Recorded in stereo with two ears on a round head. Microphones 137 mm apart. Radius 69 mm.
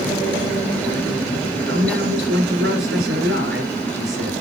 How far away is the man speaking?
About 6.5 m.